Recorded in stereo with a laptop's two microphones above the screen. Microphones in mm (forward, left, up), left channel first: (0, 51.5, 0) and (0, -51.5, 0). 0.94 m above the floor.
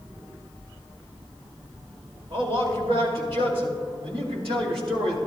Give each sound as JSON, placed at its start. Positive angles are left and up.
{"t": 2.3, "sound": "a man speaking", "side_deg": -60, "distance_m": 2.5}